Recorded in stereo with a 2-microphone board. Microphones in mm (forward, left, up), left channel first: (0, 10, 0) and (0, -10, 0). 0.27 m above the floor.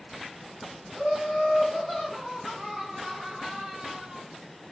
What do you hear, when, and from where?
0.9 s laughter: 10° left (ahead or behind), 2 m; by 4.2 s 45° right (ahead or behind), 1.6 m